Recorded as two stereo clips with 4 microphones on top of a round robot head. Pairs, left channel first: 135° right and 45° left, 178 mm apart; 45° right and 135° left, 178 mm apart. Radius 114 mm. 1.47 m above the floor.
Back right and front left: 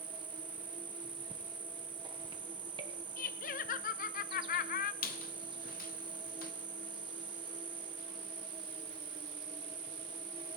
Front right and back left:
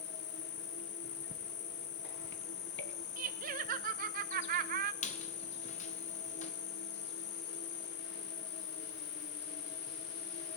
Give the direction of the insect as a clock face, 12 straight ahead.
1 o'clock.